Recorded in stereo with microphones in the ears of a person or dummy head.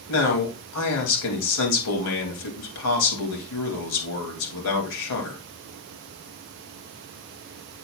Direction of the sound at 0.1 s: 85° left.